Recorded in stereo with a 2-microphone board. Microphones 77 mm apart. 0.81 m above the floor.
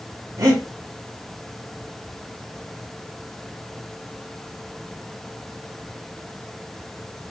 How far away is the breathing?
About 4 m.